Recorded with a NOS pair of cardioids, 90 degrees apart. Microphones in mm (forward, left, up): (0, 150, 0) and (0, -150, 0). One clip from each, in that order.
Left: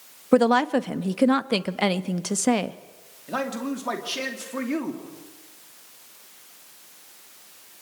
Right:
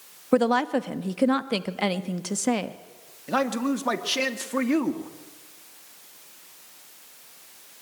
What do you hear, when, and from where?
0.3 s a woman speaking: 15° left, 1.1 m
3.3 s a man speaking: 30° right, 2.5 m